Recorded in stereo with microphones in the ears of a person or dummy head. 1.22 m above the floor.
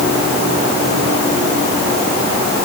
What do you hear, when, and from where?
Only background noise.